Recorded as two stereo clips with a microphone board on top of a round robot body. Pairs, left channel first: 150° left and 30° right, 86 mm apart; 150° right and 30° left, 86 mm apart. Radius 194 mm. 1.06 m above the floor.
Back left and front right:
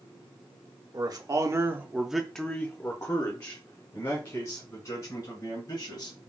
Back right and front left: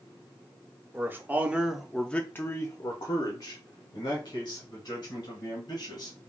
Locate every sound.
0.9 s a man speaking: 25° right, 0.9 m; by 6.2 s 175° left, 2 m